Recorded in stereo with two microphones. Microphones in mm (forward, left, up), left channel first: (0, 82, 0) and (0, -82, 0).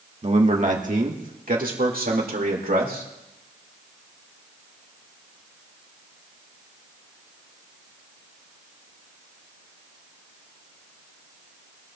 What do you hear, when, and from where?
0.2 s a man speaking: 40° right (ahead or behind), 1.3 m; by 3.0 s 65° right (ahead or behind), 3 m